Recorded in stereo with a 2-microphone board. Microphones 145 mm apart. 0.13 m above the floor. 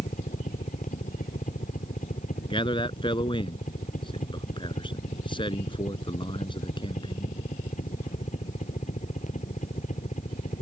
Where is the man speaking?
35° left (ahead or behind).